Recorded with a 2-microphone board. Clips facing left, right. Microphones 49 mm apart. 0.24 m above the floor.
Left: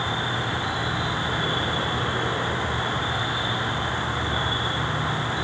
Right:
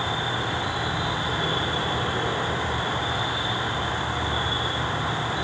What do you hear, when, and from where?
0.0 s an insect: 10° left (ahead or behind), 0.7 m